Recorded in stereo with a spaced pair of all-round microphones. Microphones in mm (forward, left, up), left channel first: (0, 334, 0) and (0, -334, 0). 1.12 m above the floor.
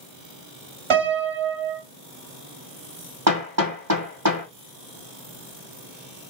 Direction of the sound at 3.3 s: 30° right (ahead or behind).